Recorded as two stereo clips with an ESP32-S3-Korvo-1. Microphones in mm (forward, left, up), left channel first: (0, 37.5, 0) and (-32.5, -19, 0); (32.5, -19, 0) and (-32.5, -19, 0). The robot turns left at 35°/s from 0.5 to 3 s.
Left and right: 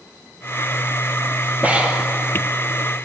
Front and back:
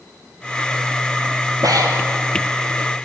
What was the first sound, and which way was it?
Breathing, 175° left.